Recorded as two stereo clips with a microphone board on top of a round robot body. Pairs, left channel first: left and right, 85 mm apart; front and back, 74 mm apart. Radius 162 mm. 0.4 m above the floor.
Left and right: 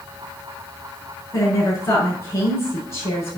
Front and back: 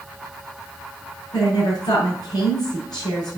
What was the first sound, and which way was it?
A woman speaking, 30° left.